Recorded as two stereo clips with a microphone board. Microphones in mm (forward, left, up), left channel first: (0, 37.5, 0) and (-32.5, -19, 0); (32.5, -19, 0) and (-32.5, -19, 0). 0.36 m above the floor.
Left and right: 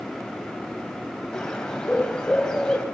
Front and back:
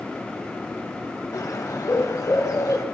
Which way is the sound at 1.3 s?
20° right.